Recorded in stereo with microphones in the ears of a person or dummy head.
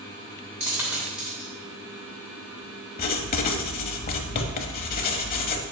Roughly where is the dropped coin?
Centre.